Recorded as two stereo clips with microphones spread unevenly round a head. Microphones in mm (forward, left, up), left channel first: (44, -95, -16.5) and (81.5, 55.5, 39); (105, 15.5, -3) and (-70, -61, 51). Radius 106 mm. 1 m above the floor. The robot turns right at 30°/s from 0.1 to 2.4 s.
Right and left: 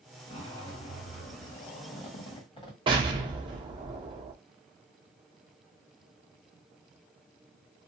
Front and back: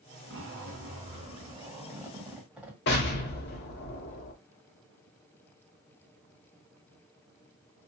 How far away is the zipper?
About 1.4 m.